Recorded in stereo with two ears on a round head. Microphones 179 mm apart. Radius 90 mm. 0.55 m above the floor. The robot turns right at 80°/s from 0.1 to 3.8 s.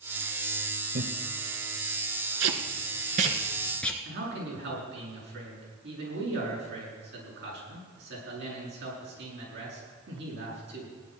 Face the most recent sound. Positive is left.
turn(degrees=-60)  # may be behind; listen again after turning